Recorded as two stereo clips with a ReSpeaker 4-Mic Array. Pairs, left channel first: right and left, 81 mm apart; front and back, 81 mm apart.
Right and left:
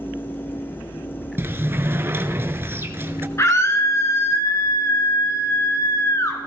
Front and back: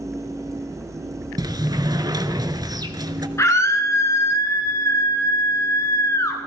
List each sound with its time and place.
1.4 s a sliding door: 150° left, 0.8 m
3.4 s a scream: 45° right, 2.5 m